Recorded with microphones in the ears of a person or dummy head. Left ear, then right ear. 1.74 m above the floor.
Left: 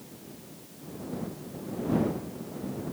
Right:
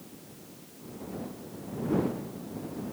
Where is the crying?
No crying in this recording.